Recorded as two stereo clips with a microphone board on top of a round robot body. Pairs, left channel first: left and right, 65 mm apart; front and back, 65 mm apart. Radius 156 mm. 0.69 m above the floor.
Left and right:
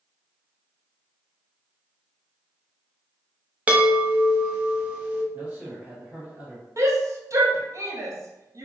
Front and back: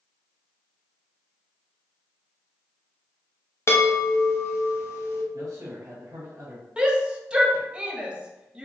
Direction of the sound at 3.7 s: 25° right.